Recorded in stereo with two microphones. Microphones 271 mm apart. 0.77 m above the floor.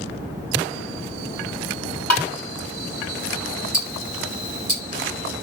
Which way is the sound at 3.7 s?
75° left (ahead or behind).